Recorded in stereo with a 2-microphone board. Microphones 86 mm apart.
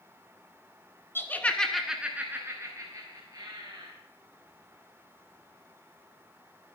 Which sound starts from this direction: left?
Laughter, at 1.1 s.